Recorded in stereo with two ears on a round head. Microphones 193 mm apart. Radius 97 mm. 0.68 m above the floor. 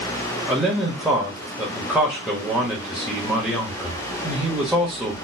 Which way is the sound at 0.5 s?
5° right (ahead or behind).